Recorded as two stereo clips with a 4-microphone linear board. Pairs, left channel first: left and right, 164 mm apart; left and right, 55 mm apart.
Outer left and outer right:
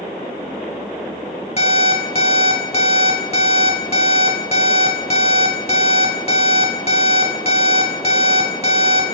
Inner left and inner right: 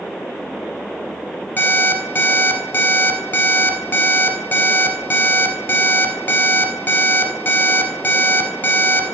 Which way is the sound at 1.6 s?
40° left (ahead or behind).